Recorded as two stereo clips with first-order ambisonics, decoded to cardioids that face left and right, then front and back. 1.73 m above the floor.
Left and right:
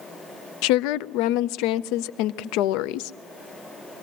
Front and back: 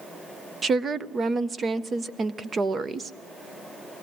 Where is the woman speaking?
110° left, 0.6 m.